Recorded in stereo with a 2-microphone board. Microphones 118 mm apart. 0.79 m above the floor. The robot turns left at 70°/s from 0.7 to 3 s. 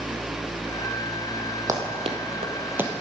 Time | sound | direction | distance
1.7 | running footsteps | 30° right (ahead or behind) | 2.0 m